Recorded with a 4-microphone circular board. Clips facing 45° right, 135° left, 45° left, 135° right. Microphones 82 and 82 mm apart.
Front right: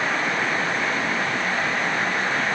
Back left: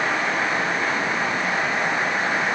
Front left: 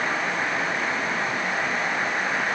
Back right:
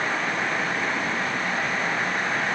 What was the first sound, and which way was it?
Only background noise.